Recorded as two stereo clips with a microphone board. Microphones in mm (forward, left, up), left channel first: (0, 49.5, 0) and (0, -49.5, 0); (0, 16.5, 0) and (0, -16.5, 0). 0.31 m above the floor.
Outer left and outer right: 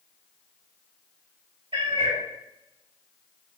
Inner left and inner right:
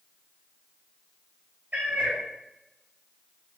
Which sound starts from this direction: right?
A cat meowing, at 1.7 s.